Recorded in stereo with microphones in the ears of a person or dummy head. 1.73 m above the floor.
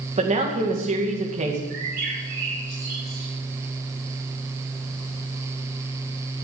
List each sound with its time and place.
0.2 s a man speaking: 35° right (ahead or behind), 2 m
1.7 s a bird: 45° right (ahead or behind), 5 m